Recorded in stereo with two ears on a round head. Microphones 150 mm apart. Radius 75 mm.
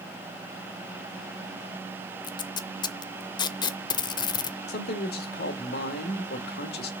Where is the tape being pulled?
25° left (ahead or behind), 0.6 m.